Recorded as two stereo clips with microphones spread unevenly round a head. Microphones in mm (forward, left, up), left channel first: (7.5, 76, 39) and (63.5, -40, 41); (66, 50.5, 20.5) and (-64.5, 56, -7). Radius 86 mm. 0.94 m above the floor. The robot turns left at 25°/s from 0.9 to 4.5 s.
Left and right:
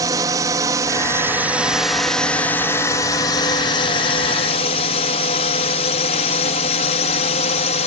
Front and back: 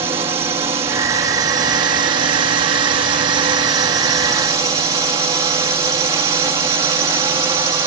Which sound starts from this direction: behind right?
A drone, at 0.0 s.